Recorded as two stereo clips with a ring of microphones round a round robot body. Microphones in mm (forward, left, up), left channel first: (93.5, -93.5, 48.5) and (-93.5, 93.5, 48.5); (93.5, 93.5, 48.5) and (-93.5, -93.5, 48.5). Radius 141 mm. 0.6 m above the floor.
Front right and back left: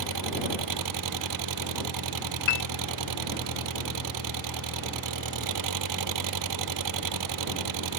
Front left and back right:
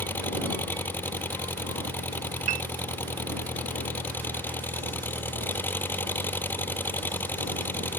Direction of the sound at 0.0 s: 130° left.